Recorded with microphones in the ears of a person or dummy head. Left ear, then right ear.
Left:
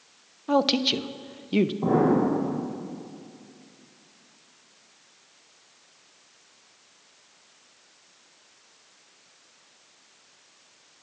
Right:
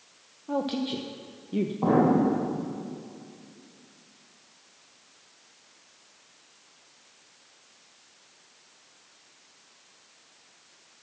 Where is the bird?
No bird in this recording.